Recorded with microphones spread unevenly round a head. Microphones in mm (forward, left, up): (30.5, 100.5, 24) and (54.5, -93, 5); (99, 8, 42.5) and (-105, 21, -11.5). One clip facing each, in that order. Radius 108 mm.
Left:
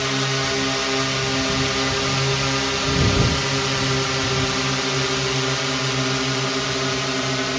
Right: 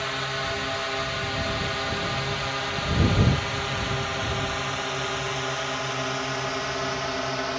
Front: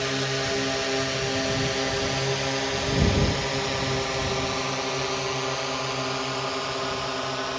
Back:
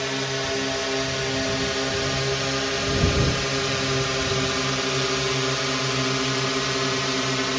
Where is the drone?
85° left; by 7.6 s 145° left.